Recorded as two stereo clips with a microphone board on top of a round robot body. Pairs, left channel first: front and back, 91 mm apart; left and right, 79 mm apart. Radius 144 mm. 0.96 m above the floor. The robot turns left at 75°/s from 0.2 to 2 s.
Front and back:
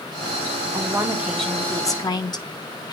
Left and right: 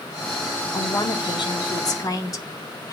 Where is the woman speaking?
140° left, 1.9 m; by 2.9 s 45° left, 1.9 m.